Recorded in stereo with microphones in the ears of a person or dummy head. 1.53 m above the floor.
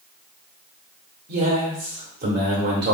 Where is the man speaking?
40° right (ahead or behind), 0.7 m.